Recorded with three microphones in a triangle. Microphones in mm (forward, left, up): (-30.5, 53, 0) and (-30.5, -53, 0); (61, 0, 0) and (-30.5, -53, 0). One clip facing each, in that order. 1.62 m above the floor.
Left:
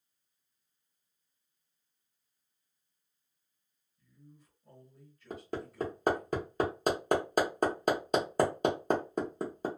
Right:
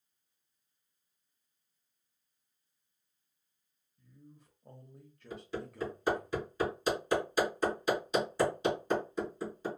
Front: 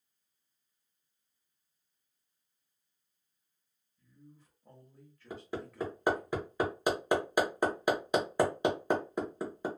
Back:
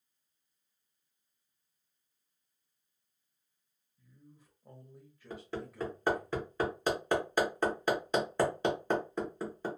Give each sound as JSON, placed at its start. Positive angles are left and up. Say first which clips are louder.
{"t": 4.0, "sound": "a man speaking", "louder": "right 2 dB, front 2 dB", "azimuth_deg": -75, "distance_m": 0.9}
{"t": 5.3, "sound": "hammering", "louder": "left 1 dB, even", "azimuth_deg": 105, "distance_m": 1.0}